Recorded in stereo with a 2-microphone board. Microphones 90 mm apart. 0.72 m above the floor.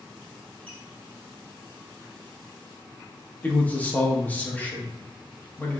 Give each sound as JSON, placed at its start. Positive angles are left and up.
{"t": 0.7, "sound": "a squeak", "side_deg": 15, "distance_m": 1.0}
{"t": 3.4, "sound": "a man speaking", "side_deg": 20, "distance_m": 0.8}